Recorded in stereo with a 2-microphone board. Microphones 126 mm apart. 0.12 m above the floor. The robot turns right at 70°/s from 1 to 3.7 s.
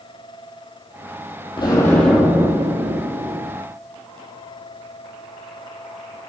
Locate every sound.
1.6 s an explosion: 140° left, 2.5 m; by 3.5 s 85° right, 2.5 m